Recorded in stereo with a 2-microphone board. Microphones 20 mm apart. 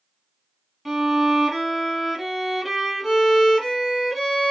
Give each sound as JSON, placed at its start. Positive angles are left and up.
{"t": 0.8, "sound": "a violin", "side_deg": -5, "distance_m": 1.2}